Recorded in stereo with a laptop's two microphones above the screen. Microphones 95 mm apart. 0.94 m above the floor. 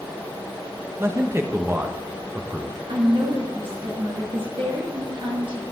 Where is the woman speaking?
65° right (ahead or behind), 1.8 m.